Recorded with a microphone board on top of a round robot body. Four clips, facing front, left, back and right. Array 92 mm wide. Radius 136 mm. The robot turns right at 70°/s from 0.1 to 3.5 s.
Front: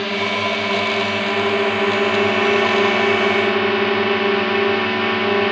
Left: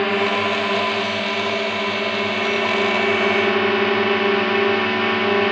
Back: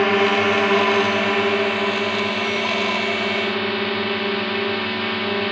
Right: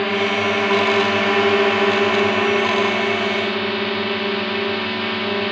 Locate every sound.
0.0 s a drone: 170° left; by 5.5 s 45° left